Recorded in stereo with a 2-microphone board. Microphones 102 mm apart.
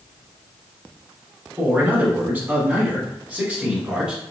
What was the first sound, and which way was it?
A man speaking, 15° right (ahead or behind).